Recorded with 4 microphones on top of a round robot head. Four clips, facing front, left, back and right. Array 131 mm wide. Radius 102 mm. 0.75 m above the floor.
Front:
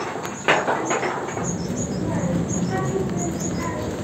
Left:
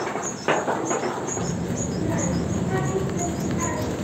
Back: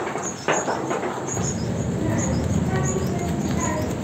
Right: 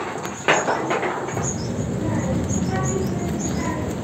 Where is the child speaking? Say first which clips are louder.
Right 1 dB, even; 135° right, 2.5 m; by 3.9 s straight behind, 3 m.